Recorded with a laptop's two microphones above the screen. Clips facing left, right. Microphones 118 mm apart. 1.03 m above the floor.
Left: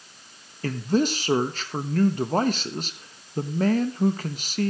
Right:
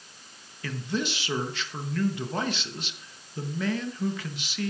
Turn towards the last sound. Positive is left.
turn(degrees=40)  # may be behind; listen again after turning